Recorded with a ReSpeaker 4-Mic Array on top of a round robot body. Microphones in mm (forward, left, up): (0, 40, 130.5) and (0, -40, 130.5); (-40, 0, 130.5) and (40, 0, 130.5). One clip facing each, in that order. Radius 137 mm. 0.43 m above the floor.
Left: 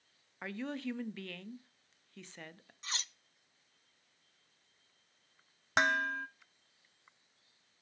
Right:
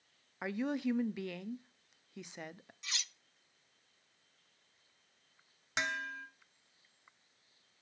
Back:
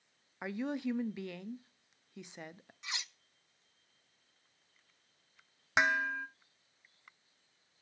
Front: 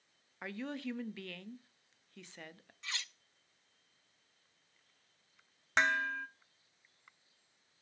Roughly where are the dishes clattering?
Left.